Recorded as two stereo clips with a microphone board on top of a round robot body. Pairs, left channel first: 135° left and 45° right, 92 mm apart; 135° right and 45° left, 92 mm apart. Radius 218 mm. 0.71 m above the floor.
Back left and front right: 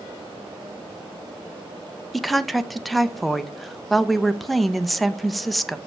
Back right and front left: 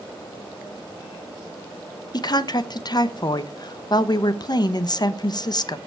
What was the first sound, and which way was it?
A woman speaking, 135° right.